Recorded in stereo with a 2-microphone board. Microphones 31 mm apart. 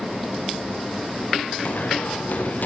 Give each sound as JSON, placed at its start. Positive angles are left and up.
{"t": 1.6, "sound": "running footsteps", "side_deg": 60, "distance_m": 5.0}